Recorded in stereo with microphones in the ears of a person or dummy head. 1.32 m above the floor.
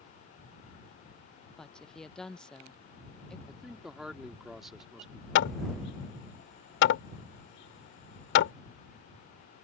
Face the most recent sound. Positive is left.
turn(degrees=70)  # may be behind; listen again after turning